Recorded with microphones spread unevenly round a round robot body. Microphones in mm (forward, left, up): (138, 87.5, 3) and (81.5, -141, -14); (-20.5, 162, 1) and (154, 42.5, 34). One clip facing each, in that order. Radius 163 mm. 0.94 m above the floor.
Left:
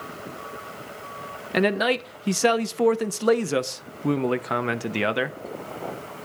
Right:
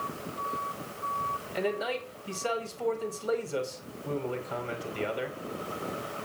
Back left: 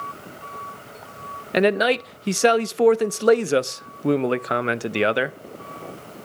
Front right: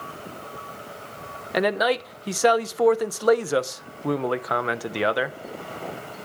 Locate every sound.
1.5 s a man speaking: 90° left, 0.7 m